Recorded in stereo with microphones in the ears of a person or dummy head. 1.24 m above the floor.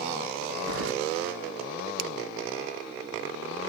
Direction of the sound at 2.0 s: 60° right (ahead or behind).